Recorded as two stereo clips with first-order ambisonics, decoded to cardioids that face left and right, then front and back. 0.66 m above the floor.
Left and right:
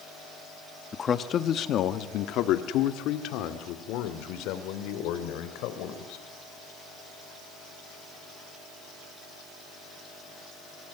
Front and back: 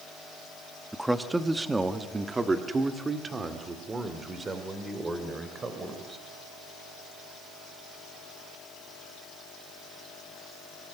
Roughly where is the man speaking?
Left.